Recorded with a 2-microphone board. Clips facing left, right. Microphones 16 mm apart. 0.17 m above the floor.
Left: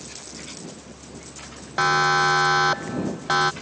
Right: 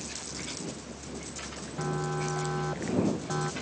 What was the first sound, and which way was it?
A siren, 70° left (ahead or behind).